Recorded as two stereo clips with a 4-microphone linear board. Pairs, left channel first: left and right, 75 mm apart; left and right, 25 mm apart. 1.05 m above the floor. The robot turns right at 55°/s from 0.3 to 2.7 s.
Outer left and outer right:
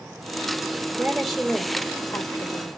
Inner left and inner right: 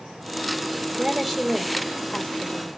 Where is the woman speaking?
25° right, 1.8 m; by 2.7 s 70° left, 1.8 m.